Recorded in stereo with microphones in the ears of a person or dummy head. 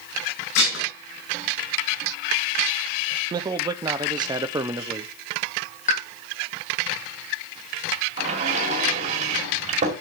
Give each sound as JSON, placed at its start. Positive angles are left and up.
{"t": 0.6, "sound": "dishes clattering", "side_deg": 85, "distance_m": 5.5}
{"t": 3.3, "sound": "a man speaking", "side_deg": -20, "distance_m": 0.8}
{"t": 5.9, "sound": "a pop", "side_deg": 45, "distance_m": 2.0}
{"t": 8.2, "sound": "a sliding door", "side_deg": -40, "distance_m": 2.0}